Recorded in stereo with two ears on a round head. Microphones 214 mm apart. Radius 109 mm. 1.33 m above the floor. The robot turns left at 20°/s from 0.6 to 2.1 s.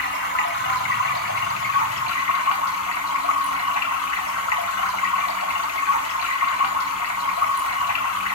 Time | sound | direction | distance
0.0 | running water | 125° left | 2.5 m